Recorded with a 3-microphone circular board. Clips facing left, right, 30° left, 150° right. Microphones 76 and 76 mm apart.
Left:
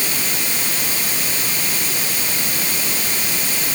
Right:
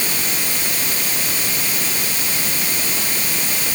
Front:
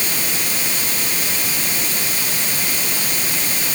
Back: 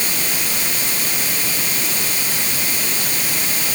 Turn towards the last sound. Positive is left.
No sound to turn to.